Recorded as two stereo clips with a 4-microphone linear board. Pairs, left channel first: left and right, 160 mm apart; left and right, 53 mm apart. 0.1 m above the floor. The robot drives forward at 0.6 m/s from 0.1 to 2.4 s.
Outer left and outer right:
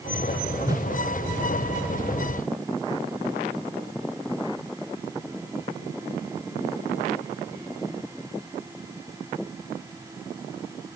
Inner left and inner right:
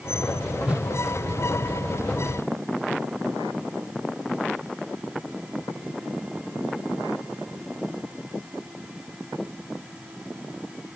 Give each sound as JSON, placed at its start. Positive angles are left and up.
{"t": 0.7, "sound": "a whoosh", "side_deg": -20}